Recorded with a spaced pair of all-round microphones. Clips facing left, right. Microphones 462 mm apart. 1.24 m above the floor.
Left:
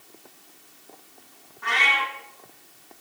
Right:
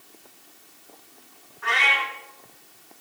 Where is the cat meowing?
60° left (ahead or behind), 5 m.